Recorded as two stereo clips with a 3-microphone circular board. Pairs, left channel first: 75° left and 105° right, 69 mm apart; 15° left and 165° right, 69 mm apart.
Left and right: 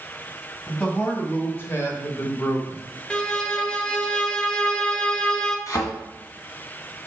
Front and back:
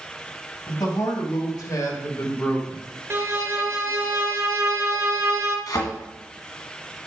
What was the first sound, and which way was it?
A man speaking, 10° left.